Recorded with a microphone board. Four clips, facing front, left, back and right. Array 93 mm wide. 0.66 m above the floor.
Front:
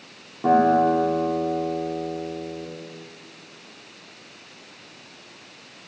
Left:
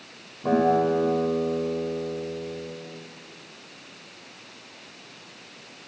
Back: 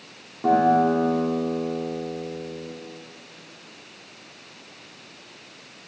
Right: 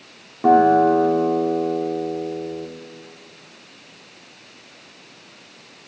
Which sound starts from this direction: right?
A guitar, at 0.4 s.